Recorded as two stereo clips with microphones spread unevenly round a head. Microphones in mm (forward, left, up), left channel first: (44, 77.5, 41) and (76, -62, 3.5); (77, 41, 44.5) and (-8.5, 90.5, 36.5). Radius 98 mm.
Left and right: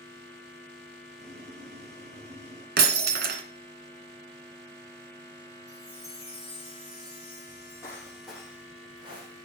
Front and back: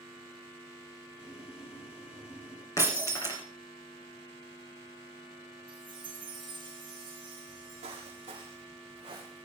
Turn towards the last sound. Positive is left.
turn(degrees=-140)